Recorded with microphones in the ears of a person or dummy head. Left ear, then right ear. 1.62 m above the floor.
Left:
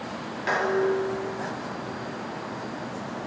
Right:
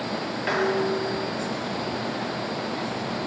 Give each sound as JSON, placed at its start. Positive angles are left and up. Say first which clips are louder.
{"t": 0.5, "sound": "dishes clattering", "louder": "left 1 dB", "side_deg": -5, "distance_m": 1.1}